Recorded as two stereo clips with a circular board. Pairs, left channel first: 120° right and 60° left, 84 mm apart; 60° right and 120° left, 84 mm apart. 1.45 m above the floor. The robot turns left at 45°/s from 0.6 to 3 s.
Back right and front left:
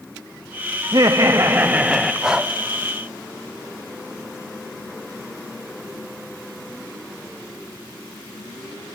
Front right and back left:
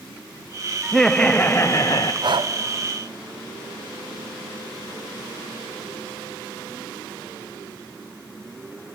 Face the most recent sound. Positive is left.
turn(degrees=110)